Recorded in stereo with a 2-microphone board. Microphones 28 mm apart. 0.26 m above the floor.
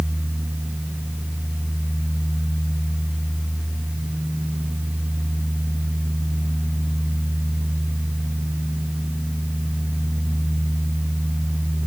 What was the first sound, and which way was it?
Only background noise.